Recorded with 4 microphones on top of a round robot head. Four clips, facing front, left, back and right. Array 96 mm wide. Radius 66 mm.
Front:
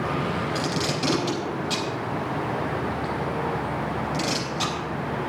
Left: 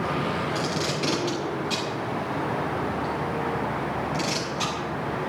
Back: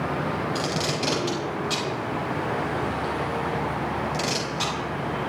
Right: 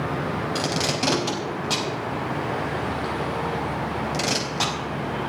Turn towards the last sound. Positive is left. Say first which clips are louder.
# right 2 dB, even
turn(degrees=-90)